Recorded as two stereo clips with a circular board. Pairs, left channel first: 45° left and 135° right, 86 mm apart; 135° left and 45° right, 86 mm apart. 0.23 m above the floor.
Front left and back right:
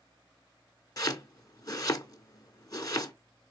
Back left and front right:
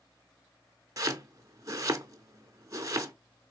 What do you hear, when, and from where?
1.0 s chopping: straight ahead, 0.7 m